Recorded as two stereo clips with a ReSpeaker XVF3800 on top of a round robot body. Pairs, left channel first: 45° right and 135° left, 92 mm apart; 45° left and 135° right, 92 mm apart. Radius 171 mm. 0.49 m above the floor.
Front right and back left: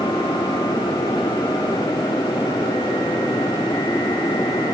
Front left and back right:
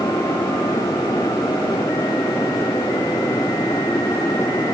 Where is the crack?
No crack in this recording.